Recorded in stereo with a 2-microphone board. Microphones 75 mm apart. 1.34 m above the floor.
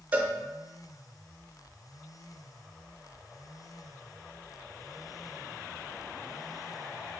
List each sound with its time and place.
0.1 s a cowbell: 20° right (ahead or behind), 0.6 m